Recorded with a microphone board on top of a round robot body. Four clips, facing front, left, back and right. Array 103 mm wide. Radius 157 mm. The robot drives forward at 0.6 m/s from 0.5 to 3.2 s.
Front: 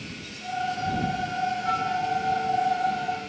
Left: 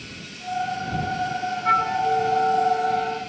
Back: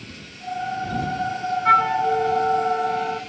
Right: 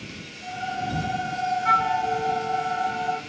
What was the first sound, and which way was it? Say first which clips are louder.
A flute: left 2 dB, back 8 dB; 160° right.